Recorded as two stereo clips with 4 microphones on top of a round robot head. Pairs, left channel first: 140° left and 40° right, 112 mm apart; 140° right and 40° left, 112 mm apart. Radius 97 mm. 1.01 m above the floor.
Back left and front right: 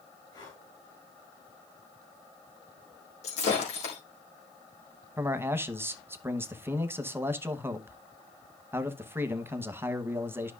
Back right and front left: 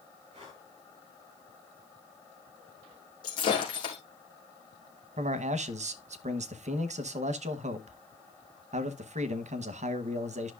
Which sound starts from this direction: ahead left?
A man speaking, at 5.2 s.